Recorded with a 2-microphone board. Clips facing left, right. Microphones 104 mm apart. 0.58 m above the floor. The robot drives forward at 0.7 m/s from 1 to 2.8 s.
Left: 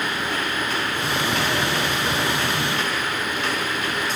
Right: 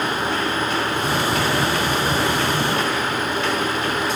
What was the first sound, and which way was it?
Only background noise.